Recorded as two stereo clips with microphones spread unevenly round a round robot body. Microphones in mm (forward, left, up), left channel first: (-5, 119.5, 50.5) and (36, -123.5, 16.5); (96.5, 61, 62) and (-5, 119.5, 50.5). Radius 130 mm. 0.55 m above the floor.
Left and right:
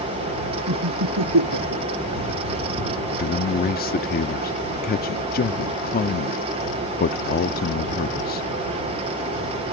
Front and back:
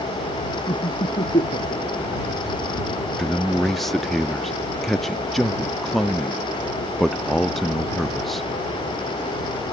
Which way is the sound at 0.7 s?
80° right.